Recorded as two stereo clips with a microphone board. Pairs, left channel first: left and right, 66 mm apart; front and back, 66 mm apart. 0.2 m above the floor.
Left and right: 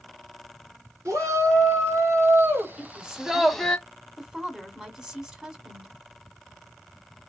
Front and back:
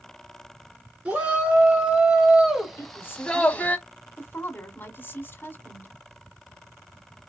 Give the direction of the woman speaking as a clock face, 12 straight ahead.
1 o'clock.